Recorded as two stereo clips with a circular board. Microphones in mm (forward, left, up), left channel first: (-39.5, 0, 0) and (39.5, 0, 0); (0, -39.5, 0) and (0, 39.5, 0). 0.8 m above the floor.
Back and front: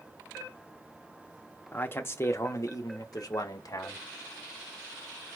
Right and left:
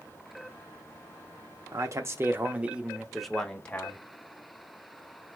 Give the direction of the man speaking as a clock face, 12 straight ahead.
8 o'clock.